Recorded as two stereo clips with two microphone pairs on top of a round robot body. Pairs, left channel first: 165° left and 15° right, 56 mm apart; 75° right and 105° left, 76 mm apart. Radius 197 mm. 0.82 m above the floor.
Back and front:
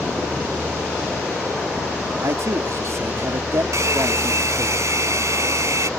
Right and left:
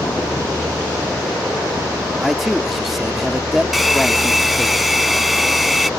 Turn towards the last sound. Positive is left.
turn(degrees=15)